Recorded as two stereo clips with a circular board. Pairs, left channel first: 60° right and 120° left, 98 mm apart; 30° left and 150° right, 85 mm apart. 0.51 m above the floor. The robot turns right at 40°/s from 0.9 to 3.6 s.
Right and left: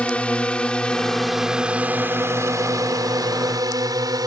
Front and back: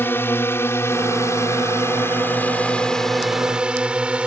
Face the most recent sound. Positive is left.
turn(degrees=140)